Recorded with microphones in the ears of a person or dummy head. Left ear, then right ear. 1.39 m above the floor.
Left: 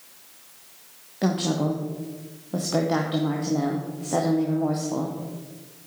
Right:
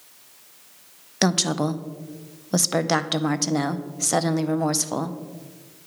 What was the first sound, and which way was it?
A woman speaking, 70° right (ahead or behind).